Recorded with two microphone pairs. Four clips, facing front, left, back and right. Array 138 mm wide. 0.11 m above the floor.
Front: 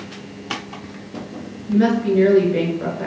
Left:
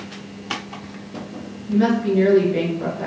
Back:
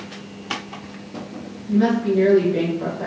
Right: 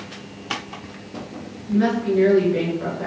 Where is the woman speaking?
5° left, 1.2 m.